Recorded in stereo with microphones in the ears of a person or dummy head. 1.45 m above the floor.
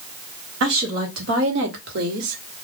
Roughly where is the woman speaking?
Right.